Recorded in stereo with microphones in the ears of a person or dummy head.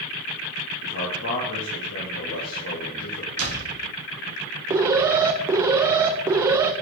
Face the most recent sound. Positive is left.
turn(degrees=-15)  # may be behind; listen again after turning